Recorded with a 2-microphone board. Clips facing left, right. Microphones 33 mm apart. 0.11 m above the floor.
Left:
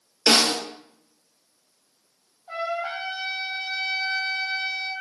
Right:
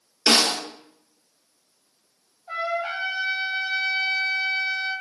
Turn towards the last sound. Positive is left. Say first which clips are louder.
# right 2 dB
turn(degrees=-40)  # may be behind; listen again after turning